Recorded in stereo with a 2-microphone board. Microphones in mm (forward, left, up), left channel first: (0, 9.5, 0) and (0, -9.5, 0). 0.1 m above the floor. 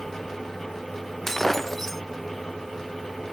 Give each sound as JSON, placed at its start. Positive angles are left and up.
{"t": 1.3, "sound": "breaking glass", "side_deg": 10}